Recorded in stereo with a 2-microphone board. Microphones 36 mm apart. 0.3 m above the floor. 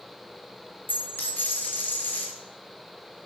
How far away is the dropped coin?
About 1.5 m.